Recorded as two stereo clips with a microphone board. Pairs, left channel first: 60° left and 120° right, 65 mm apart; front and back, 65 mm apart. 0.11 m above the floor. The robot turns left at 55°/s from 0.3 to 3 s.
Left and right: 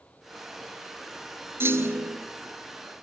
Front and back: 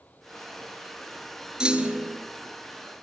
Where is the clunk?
110° right, 1.9 m; by 2.2 s 140° right, 1.9 m.